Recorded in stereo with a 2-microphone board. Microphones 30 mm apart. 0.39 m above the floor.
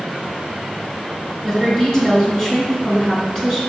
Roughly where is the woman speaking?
Centre.